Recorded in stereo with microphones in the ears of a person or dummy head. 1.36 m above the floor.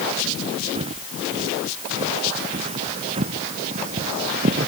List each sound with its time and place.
0.8 s footsteps: 30° right (ahead or behind); by 4.7 s 40° right (ahead or behind)